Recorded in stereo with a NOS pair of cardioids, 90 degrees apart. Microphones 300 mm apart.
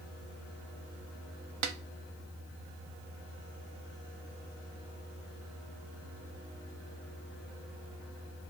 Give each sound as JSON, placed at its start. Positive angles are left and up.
{"t": 1.6, "sound": "a snare drum", "azimuth_deg": -65, "distance_m": 0.5}